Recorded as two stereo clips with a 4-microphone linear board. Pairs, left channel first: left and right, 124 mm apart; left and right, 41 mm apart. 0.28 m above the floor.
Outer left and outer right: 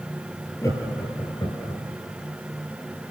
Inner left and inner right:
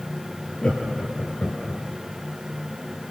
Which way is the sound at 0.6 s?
25° left (ahead or behind).